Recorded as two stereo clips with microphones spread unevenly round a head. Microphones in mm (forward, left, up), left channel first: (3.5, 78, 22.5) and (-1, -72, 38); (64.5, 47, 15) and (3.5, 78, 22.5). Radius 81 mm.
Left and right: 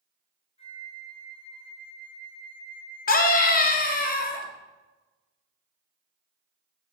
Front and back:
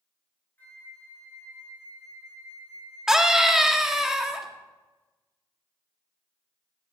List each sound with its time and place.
0.6 s a flute: 35° left, 3.5 m
3.1 s a scream: 70° left, 2 m